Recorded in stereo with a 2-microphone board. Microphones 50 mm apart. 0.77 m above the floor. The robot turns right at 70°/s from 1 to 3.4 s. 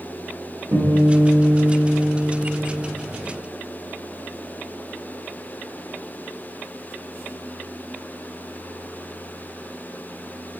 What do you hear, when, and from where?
0.7 s a guitar: 125° right, 1.2 m; by 2.8 s straight ahead, 1.2 m